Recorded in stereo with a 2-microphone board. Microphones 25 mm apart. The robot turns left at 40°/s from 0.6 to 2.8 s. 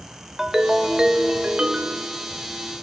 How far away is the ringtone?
About 0.6 m.